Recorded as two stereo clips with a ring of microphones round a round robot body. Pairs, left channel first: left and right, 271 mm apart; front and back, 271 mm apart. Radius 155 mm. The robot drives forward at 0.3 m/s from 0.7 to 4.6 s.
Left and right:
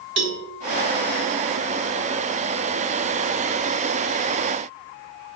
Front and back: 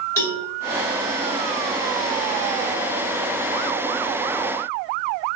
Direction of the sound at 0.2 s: 75° right.